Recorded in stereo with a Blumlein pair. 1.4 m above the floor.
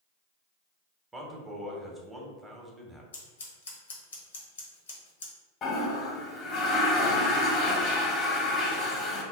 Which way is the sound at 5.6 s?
30° left.